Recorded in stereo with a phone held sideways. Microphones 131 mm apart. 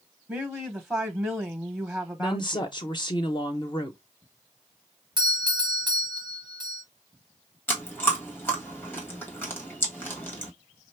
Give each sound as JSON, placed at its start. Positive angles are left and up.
{"t": 0.3, "sound": "a woman speaking", "side_deg": -5, "distance_m": 0.7}
{"t": 2.2, "sound": "a woman speaking", "side_deg": 35, "distance_m": 0.6}
{"t": 5.2, "sound": "a doorbell", "side_deg": -35, "distance_m": 0.8}
{"t": 7.7, "sound": "chewing", "side_deg": 15, "distance_m": 1.5}